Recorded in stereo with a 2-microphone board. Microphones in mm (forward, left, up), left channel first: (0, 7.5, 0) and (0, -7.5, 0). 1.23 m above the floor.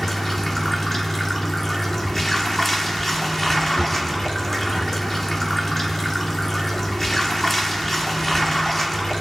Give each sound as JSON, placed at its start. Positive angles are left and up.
{"t": 0.0, "sound": "running water", "side_deg": 25, "distance_m": 1.7}
{"t": 3.8, "sound": "a drawer", "side_deg": 65, "distance_m": 4.5}